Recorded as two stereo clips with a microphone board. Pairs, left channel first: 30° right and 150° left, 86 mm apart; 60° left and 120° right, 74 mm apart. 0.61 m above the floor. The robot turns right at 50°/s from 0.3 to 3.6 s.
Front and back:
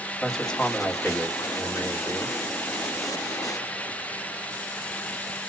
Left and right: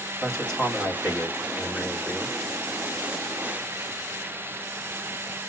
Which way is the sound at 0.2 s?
115° right.